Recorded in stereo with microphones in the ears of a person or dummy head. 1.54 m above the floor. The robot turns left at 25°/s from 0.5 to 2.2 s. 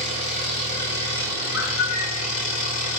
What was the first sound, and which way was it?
An engine running, 125° left.